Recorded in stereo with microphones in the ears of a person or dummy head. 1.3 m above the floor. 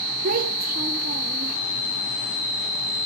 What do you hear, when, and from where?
0.2 s a child speaking: 45° right (ahead or behind), 1.4 m